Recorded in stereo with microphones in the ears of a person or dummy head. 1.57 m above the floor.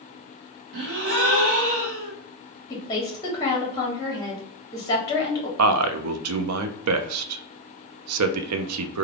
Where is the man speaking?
85° right, 0.5 m.